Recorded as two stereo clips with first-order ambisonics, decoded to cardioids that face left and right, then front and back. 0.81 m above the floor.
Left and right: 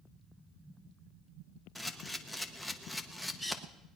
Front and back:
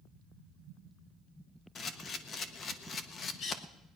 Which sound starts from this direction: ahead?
A camera shutter, at 1.8 s.